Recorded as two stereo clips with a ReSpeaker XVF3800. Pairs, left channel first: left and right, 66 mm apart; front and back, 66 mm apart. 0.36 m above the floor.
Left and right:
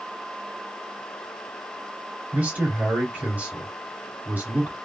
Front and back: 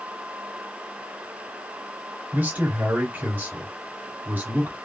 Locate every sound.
2.3 s a man speaking: 140° right, 1.8 m